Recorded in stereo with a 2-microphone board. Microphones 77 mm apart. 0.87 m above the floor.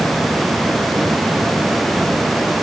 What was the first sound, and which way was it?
Only background noise.